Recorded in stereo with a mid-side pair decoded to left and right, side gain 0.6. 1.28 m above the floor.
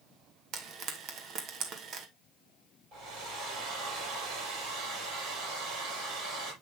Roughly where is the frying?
Ahead right.